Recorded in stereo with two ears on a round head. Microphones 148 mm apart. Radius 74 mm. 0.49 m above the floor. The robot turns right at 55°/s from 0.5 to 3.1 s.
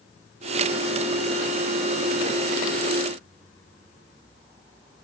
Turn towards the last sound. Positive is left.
No sound to turn to.